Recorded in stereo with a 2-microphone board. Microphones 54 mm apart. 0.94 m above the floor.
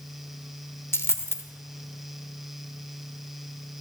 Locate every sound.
0.9 s a dropped coin: 55° left (ahead or behind), 0.8 m